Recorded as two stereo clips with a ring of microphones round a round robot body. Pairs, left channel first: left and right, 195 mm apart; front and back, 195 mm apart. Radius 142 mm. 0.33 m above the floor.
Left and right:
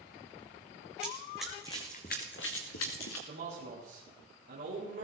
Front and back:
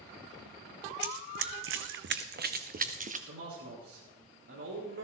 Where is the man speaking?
145° right, 5.5 m.